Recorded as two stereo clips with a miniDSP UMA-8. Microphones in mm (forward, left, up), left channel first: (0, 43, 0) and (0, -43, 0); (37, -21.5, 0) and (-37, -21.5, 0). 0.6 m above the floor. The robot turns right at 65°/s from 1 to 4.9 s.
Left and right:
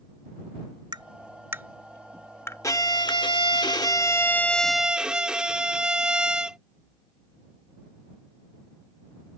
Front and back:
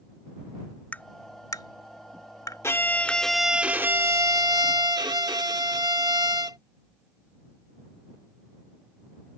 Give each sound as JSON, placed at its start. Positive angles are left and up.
{"t": 0.9, "sound": "tapping", "azimuth_deg": -65}
{"t": 2.6, "sound": "a violin", "azimuth_deg": 45}